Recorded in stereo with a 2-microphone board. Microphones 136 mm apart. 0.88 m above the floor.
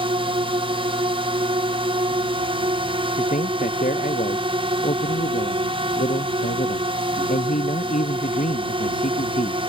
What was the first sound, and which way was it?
A drone, 40° right (ahead or behind).